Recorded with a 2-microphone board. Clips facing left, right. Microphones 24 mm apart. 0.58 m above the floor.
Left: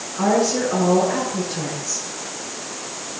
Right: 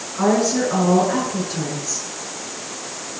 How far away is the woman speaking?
About 7.5 m.